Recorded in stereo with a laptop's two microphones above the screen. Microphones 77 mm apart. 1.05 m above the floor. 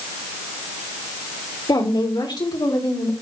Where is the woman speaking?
85° left, 3.5 m; by 3.1 s 75° left (ahead or behind), 3 m.